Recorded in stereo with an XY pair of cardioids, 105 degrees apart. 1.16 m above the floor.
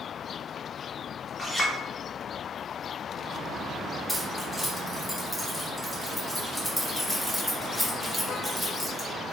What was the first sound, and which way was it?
A clink, 20° left.